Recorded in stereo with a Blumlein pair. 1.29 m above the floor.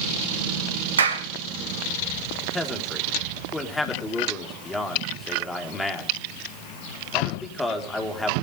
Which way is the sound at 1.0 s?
70° right.